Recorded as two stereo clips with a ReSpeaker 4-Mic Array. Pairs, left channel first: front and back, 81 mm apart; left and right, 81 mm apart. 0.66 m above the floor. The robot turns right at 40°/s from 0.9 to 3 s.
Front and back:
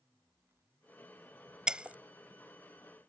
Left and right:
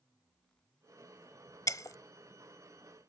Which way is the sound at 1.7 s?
105° left.